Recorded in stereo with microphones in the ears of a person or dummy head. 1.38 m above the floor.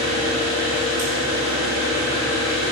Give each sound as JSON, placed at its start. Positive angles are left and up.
{"t": 0.0, "sound": "an engine running", "side_deg": -80, "distance_m": 2.5}